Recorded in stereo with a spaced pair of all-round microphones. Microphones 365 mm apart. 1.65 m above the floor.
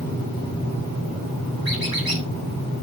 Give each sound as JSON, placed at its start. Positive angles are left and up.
{"t": 1.6, "sound": "a squeak", "side_deg": -75, "distance_m": 3.5}